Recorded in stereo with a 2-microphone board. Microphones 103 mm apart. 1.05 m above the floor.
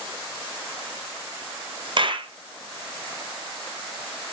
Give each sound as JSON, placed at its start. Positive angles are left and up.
{"t": 2.0, "sound": "a clap", "side_deg": -50, "distance_m": 0.6}